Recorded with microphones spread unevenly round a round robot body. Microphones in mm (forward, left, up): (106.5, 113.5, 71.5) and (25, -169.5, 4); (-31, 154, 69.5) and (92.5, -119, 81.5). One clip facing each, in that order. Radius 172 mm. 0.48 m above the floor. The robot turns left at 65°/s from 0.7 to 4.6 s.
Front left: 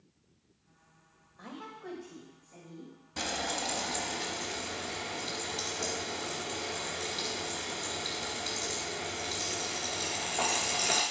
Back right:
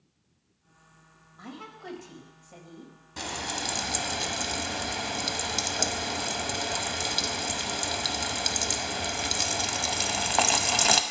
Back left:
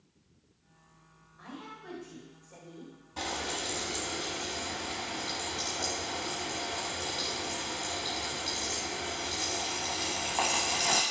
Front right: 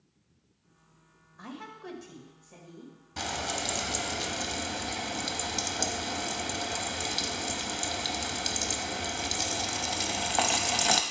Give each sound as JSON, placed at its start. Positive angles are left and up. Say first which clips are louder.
{"t": 1.4, "sound": "a woman speaking", "louder": "back right 2 dB, front right 3 dB", "azimuth_deg": -45, "distance_m": 2.0}
{"t": 3.2, "sound": "frying", "louder": "even, front right 1 dB", "azimuth_deg": -10, "distance_m": 0.8}